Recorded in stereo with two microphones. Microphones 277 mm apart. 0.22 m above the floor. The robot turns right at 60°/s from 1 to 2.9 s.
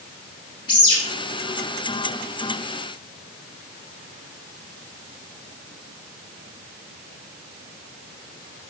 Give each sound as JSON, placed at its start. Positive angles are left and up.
{"t": 0.7, "sound": "a bird", "side_deg": 55, "distance_m": 1.2}